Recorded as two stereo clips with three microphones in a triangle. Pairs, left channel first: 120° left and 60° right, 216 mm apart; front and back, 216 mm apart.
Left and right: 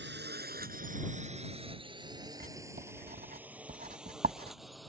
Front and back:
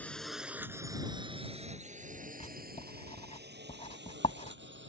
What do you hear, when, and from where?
0.0 s a drone: 85° right; by 4.9 s 150° right
2.4 s writing: 45° right